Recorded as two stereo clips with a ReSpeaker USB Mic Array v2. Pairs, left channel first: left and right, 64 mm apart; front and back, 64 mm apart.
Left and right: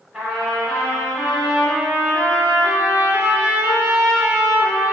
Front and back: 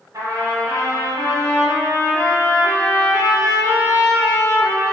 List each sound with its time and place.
0.1 s a trumpet: 165° right, 0.9 m